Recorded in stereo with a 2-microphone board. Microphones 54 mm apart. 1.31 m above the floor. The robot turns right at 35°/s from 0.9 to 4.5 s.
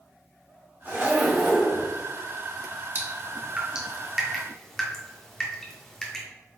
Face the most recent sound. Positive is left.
turn(degrees=10)  # may be behind; listen again after turning